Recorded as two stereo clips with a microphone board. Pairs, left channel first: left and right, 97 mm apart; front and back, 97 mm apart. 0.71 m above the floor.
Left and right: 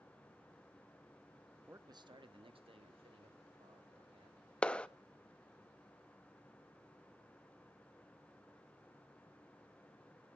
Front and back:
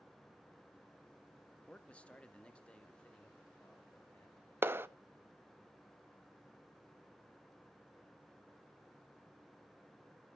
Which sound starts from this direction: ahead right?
A man speaking, at 1.7 s.